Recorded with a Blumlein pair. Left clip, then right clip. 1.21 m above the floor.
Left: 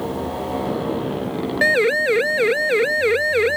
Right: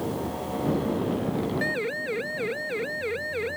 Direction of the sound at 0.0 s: 20° left.